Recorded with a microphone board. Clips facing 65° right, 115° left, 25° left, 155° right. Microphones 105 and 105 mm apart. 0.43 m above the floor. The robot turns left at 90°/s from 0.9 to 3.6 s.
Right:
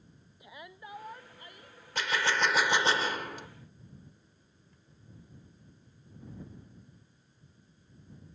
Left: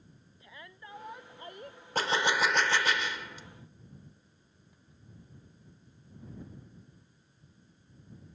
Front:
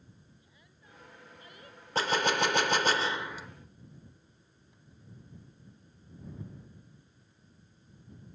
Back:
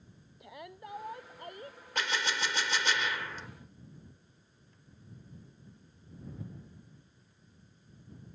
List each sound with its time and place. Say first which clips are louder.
0.4 s a shout: right 3 dB, back 16 dB; 145° right; by 1.8 s 135° left
1.9 s a gunshot: left 2 dB, front 6 dB; 70° left; by 3.5 s 65° right